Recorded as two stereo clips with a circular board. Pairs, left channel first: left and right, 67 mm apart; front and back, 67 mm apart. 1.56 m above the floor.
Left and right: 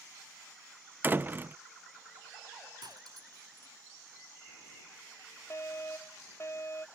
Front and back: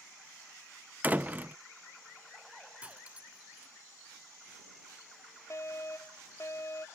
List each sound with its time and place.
1.0 s a door slam: 130° right
2.8 s cutlery clinking: 110° right
5.5 s a fire alarm: 45° left